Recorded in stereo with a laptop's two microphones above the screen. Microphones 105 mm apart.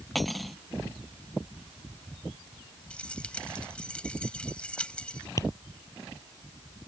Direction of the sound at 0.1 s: Centre (ahead or behind).